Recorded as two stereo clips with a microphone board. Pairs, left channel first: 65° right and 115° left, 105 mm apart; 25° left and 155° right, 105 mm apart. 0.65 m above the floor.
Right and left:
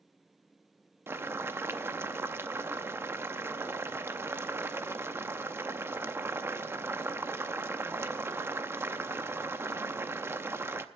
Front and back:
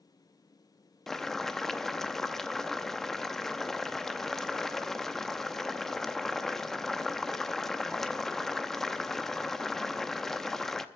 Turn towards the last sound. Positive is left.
turn(degrees=105)